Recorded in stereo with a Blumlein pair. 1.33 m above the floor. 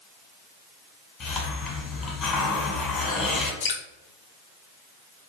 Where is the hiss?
25° left, 1.1 m.